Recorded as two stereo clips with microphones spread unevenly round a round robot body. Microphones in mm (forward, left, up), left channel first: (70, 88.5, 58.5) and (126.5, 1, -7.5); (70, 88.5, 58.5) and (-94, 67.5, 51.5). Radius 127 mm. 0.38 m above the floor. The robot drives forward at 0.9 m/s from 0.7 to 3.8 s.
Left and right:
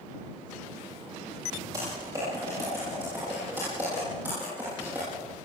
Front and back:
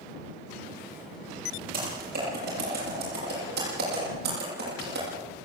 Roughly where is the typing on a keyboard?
Behind right.